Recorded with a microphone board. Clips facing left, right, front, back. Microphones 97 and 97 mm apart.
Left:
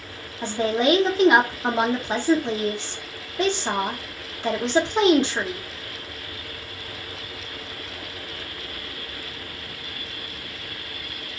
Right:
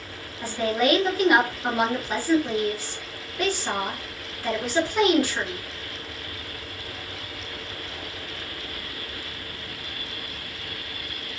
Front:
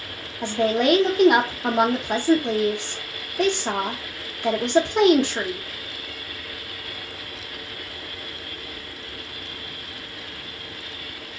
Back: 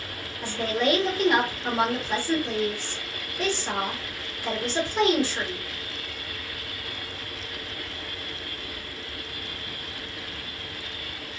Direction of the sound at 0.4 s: 25° left.